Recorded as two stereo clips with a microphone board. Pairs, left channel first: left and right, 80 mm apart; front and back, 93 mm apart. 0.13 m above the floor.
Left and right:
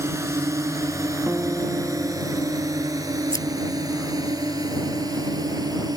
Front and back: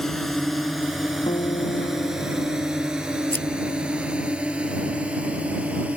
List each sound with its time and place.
0.0 s a drone: 85° right; by 6.0 s 110° right
1.3 s a guitar: 20° right
3.3 s scissors: 60° left